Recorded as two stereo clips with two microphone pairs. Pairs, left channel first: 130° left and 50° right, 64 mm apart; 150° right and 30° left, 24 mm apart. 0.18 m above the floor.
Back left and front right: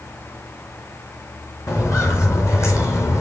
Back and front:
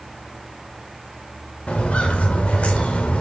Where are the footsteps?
170° left, 4 m; by 3.2 s 175° left, 3 m.